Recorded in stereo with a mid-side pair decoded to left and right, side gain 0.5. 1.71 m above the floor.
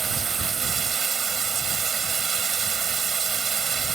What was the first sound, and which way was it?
Running water, 45° right.